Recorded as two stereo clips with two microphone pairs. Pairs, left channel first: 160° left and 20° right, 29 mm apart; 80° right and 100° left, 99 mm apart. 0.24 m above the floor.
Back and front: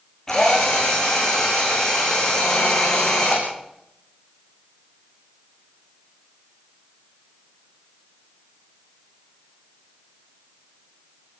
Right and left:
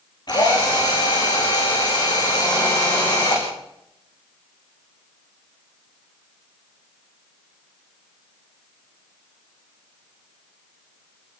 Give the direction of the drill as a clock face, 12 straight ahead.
4 o'clock.